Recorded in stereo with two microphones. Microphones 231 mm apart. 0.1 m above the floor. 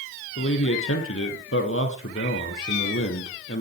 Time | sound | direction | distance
0.4 | a man speaking | 70° left (ahead or behind) | 3 m